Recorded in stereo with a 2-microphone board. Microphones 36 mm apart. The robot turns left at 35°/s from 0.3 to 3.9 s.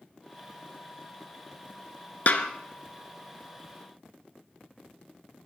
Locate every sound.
2.3 s a snare drum: 50° left (ahead or behind), 1.4 m; by 2.5 s 55° left (ahead or behind), 1.4 m